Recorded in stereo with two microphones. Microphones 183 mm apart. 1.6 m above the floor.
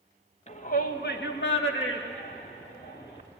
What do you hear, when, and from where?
0.5 s a shout: 40° left (ahead or behind), 2.0 m; by 3.2 s 75° left (ahead or behind), 3.5 m